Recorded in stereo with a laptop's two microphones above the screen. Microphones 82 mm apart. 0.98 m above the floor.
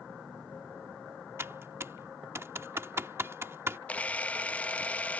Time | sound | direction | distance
1.4 | typing on a keyboard | 30° right (ahead or behind) | ?
3.9 | a camera shutter | 15° left (ahead or behind) | ?